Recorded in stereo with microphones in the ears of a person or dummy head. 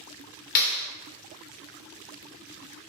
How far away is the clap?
About 2 m.